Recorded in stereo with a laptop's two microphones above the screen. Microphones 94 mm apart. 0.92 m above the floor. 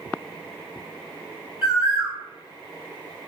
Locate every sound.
1.6 s a bird: 30° right (ahead or behind), 1.1 m